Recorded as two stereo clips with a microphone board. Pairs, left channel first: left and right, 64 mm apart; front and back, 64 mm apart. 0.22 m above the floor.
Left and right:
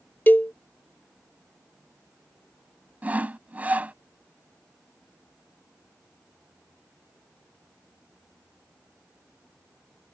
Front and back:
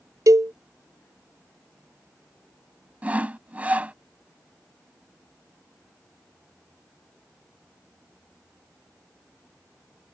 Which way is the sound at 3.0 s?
135° right.